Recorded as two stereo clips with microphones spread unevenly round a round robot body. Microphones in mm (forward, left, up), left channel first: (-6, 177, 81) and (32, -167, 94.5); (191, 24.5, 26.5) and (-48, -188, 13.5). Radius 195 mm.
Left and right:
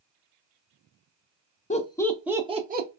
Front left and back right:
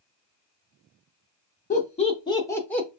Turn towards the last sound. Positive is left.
turn(degrees=-50)